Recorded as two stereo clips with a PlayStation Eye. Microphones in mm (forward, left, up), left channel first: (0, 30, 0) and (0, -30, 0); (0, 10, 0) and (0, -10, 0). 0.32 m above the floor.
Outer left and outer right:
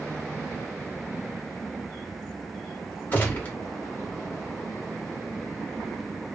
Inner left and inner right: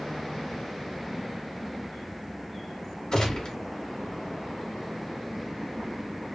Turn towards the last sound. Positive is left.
turn(degrees=30)  # may be behind; listen again after turning